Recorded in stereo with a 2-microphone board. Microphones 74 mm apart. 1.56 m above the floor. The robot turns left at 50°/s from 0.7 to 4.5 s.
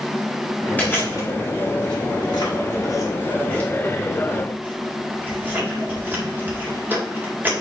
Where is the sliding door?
No sliding door in this recording.